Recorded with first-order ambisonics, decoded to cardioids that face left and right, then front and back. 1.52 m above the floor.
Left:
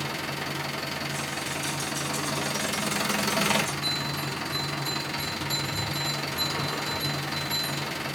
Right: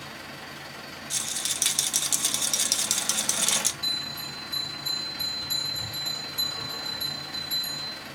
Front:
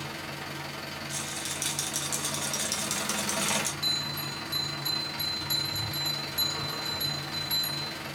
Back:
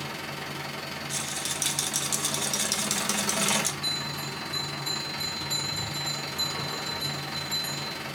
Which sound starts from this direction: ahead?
A bell, at 3.8 s.